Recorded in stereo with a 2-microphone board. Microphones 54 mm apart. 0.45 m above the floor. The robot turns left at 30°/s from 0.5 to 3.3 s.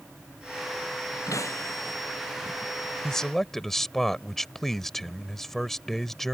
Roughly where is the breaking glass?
Left.